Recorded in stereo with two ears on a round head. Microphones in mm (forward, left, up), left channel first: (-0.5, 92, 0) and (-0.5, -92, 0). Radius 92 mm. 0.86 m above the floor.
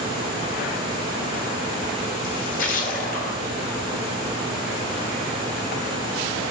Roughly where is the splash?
Left.